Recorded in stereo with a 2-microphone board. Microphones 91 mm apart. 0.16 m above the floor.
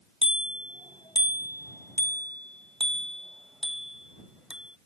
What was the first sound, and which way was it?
A bicycle bell, 70° left (ahead or behind).